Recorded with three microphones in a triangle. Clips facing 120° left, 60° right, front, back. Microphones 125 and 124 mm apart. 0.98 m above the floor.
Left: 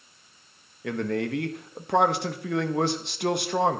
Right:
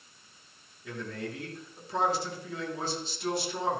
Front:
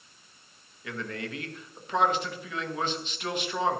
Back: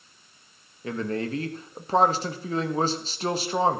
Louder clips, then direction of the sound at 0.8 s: Left 10 dB, back 8 dB; 130° left.